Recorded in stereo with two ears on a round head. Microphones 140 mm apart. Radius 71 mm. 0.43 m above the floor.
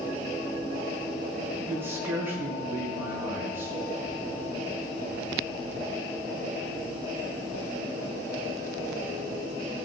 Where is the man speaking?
15° right (ahead or behind), 4.5 m.